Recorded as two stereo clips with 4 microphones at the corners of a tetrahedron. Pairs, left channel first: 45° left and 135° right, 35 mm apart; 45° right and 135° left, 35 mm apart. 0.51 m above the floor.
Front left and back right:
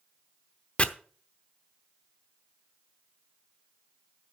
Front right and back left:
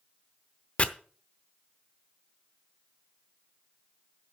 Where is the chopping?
Straight ahead, 0.8 m.